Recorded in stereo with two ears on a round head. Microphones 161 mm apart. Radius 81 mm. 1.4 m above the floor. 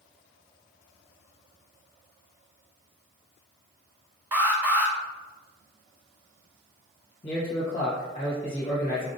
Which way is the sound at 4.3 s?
10° right (ahead or behind).